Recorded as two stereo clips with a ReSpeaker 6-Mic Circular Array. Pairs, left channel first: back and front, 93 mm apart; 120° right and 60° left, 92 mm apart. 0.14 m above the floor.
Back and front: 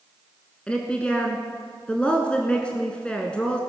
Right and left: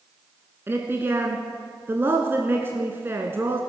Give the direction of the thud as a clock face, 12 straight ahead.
I don't hear a thud.